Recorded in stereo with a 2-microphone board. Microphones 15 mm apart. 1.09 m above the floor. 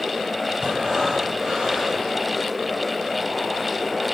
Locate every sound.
0.6 s breathing: 80° right, 5 m